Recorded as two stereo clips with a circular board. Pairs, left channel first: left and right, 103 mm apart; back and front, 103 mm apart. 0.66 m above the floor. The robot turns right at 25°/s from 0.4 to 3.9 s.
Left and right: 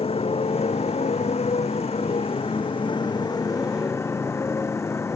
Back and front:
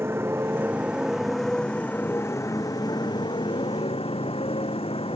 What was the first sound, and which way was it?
A motorcycle, 65° left.